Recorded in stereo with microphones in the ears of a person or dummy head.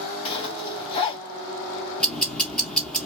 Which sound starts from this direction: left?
A zipper, at 0.2 s.